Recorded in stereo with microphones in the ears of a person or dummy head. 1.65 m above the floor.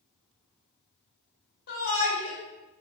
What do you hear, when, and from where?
1.7 s a shout: 55° left (ahead or behind), 1.8 m